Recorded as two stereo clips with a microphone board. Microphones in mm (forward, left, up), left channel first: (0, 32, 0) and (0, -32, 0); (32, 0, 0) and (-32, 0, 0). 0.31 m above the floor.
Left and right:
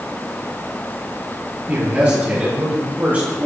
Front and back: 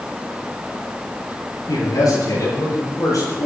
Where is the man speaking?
25° right, 7 m.